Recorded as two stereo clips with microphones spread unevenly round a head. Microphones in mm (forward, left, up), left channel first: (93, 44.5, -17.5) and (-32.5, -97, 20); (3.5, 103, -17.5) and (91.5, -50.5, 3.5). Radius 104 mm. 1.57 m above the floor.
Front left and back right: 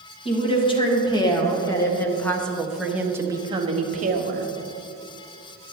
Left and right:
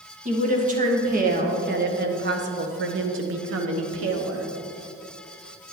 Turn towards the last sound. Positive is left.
turn(degrees=-95)